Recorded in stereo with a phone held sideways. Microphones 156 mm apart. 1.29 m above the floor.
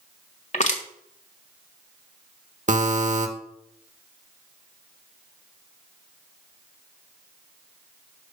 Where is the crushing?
50° left (ahead or behind), 1.5 m.